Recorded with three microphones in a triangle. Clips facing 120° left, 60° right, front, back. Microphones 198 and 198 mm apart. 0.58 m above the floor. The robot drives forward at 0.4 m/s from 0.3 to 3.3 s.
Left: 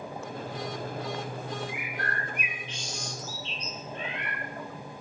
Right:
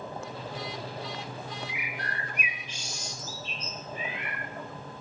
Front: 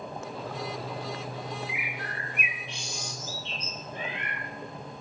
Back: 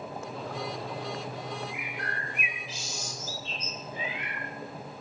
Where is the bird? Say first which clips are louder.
Left 3 dB, even; 80° left, 2 m; by 4.4 s 100° left, 2 m.